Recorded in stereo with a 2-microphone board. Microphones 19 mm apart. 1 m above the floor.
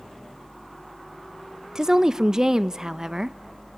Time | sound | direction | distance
1.8 | a woman speaking | 30° right (ahead or behind) | 0.5 m